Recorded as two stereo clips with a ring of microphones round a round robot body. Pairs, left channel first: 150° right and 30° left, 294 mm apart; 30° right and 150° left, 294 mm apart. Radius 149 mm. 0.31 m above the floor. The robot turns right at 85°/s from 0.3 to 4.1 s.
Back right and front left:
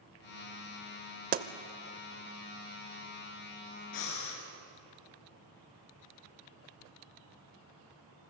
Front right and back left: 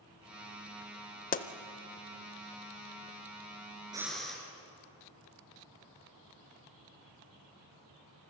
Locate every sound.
1.3 s a pop: straight ahead, 0.7 m; by 1.5 s 10° left, 0.7 m
3.9 s breathing: 135° right, 2.5 m; by 4.4 s 120° right, 2.5 m